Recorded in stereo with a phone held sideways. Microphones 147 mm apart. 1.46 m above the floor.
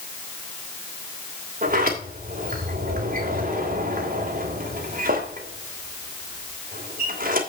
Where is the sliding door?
70° right (ahead or behind), 2.5 m.